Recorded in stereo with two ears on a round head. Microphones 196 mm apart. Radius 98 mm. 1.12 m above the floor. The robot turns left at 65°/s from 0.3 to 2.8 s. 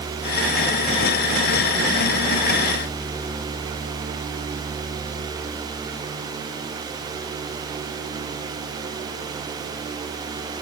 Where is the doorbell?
I don't hear a doorbell.